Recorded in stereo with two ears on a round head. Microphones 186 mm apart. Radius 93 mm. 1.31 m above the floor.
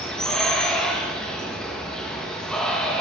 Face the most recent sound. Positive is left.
turn(degrees=5)  # may be behind; listen again after turning